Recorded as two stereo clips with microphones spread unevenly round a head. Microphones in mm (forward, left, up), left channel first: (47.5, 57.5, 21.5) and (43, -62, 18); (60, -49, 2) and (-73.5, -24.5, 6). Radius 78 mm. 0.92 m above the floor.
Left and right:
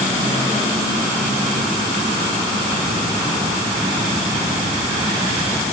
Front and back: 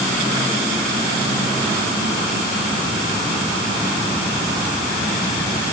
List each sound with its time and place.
Only background noise.